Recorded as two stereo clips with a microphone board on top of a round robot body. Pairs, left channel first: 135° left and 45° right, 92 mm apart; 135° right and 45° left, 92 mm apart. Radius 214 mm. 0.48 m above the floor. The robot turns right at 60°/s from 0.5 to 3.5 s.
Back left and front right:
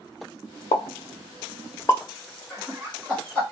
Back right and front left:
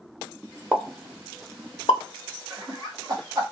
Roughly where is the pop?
Behind left.